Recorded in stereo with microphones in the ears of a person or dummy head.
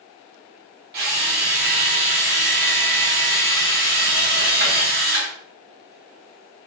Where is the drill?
45° right (ahead or behind), 1.3 m.